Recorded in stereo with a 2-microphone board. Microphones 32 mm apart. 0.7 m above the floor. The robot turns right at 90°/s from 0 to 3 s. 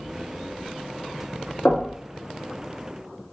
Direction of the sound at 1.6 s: 50° left (ahead or behind).